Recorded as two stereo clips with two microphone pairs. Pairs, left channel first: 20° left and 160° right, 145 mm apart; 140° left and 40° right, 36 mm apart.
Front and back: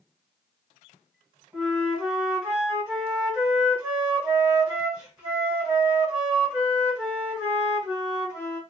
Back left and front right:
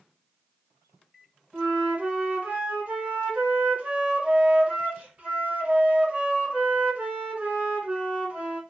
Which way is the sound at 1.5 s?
80° right.